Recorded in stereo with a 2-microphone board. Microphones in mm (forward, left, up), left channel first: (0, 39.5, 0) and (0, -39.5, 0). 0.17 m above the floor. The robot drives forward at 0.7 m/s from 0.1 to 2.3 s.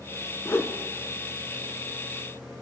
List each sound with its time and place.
0.5 s a whoosh: 35° left (ahead or behind), 0.8 m; by 0.7 s 30° left (ahead or behind), 0.9 m